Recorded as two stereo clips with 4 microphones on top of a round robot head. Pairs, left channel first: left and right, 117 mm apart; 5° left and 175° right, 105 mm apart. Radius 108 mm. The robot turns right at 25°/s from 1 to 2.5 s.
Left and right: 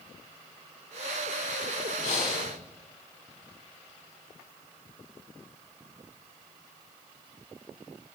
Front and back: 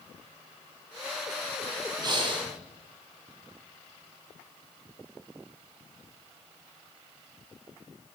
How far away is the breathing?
About 4.5 m.